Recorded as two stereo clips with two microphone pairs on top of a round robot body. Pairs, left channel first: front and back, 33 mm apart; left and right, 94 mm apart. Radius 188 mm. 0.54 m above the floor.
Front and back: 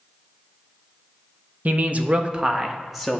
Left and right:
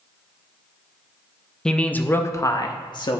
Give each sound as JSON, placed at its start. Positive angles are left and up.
{"t": 1.6, "sound": "a man speaking", "azimuth_deg": 170, "distance_m": 0.9}